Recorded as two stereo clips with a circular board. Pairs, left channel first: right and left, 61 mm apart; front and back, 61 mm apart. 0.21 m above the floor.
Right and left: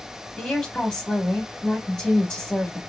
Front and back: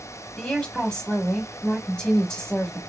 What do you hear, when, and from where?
0.4 s a woman speaking: 45° right, 1.0 m